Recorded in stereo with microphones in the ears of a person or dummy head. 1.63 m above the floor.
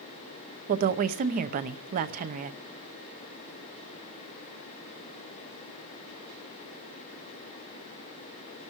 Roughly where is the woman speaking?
Right.